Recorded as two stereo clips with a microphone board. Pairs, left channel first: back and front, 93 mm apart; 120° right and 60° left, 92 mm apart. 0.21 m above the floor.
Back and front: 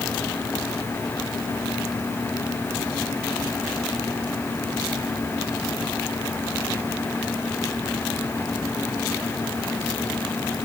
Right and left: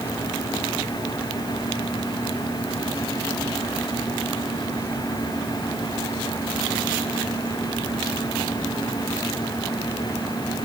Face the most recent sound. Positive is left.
No sound to turn to.